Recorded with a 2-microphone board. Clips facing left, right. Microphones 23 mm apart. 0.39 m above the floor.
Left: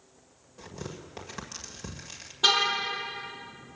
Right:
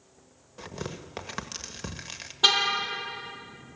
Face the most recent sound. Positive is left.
turn(degrees=-15)  # may be behind; listen again after turning